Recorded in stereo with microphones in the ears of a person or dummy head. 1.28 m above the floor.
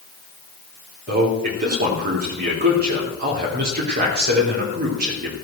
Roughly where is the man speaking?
Right.